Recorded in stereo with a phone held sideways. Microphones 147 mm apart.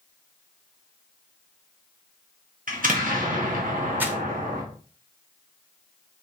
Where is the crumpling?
15° right (ahead or behind), 1.1 m.